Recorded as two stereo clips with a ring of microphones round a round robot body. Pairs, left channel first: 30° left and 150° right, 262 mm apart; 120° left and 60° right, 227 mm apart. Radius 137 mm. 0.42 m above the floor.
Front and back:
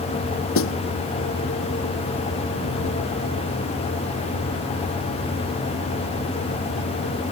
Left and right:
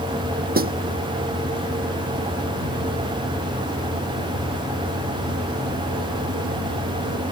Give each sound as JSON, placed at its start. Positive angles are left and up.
{"t": 0.6, "sound": "a snare drum", "azimuth_deg": -10}